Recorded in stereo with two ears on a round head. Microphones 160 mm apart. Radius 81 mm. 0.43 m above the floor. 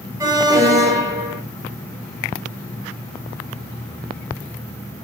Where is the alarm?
20° right (ahead or behind), 2.0 m.